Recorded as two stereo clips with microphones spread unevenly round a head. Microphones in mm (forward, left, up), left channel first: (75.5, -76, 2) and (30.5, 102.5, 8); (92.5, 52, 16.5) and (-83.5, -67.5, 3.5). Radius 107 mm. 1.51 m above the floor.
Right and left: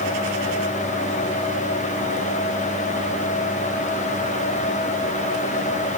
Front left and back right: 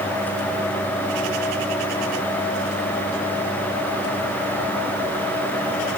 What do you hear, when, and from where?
Only background noise.